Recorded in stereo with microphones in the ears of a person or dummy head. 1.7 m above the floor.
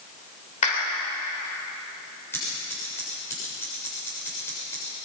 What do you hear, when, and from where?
0.6 s a clap: 35° left (ahead or behind), 4.5 m
2.3 s scissors: 10° left (ahead or behind), 7.5 m